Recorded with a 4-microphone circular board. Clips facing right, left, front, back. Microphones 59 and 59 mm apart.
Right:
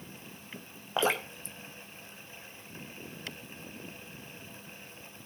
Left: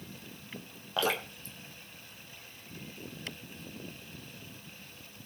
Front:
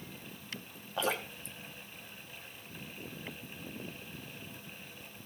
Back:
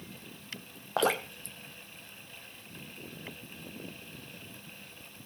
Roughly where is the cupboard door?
I don't hear a cupboard door.